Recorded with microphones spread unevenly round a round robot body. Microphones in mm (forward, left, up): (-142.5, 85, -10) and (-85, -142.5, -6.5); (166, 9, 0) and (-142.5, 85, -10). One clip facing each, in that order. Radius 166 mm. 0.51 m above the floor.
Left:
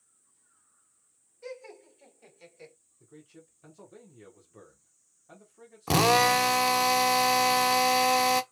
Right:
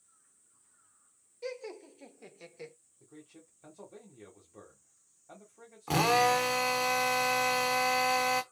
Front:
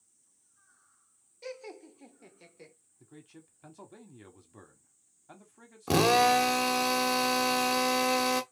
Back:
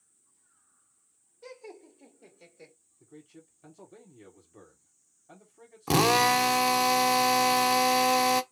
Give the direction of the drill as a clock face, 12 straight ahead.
9 o'clock.